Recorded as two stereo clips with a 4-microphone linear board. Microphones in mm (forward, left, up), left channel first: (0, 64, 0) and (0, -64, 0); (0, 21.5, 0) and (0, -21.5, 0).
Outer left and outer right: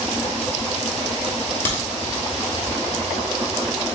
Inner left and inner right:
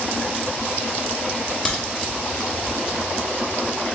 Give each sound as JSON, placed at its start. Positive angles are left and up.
{"t": 1.6, "sound": "a crack", "side_deg": 15, "distance_m": 1.3}